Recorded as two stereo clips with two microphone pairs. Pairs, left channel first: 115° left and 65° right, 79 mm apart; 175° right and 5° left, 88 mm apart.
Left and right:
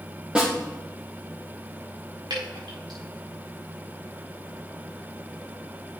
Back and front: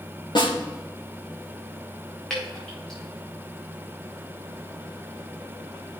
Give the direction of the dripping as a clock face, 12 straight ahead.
3 o'clock.